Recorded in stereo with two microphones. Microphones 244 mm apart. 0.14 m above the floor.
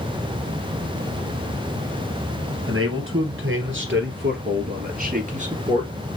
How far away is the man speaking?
About 3 m.